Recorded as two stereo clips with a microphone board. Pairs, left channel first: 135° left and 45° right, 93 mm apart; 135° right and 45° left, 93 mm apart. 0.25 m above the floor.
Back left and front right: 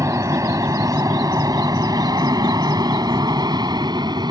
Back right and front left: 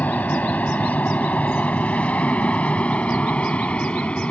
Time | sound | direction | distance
0.0 | an aircraft | 75° right | ?